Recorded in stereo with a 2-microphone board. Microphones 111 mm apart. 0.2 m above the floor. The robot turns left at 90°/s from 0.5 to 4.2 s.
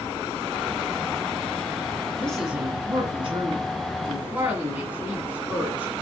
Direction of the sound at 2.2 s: 20° left.